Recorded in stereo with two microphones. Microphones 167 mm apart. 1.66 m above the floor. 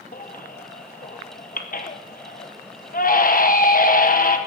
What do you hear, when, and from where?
0.1 s a baby crying: 60° left (ahead or behind), 0.9 m